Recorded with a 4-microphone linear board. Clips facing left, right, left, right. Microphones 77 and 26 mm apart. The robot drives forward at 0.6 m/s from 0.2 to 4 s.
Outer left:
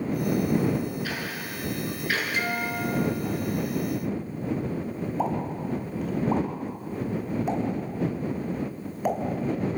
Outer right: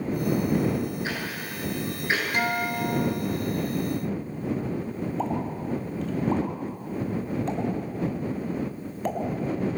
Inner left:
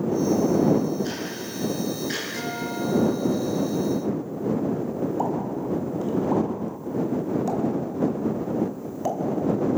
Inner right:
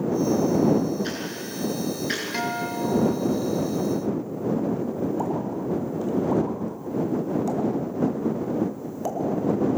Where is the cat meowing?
I don't hear a cat meowing.